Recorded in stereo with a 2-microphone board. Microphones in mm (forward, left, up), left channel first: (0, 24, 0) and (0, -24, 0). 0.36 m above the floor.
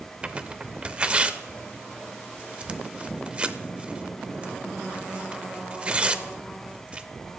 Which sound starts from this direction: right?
Tearing paper, at 0.2 s.